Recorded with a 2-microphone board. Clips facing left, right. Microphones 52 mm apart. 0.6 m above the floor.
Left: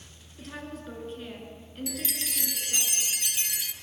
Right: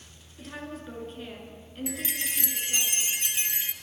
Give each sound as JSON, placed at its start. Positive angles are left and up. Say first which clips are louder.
{"t": 0.4, "sound": "a woman speaking", "louder": "right 1 dB", "side_deg": 0, "distance_m": 7.0}
{"t": 1.9, "sound": "a chime", "louder": "right 3 dB", "side_deg": -25, "distance_m": 1.2}